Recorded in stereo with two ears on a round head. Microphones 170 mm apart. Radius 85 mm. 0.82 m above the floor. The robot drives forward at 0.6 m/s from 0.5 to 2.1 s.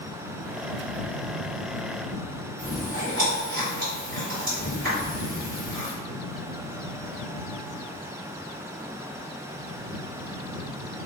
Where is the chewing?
55° right (ahead or behind), 1.6 m.